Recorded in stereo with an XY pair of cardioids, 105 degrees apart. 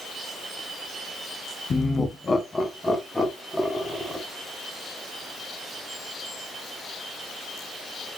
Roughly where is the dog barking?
I don't hear a dog barking.